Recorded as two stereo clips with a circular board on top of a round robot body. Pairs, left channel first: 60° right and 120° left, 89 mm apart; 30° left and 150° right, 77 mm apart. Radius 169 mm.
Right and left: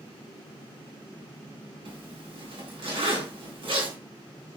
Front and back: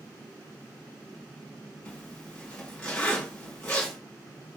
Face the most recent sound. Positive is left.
turn(degrees=105)